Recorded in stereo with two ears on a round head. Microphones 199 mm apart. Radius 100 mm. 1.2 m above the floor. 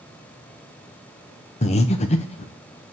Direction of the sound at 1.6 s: 30° left (ahead or behind).